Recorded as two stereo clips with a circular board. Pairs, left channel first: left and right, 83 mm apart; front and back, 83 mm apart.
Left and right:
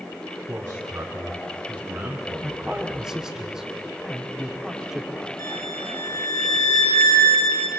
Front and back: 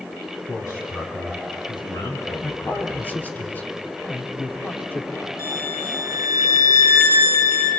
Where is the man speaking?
40° right, 3.5 m; by 3.1 s 5° right, 3 m.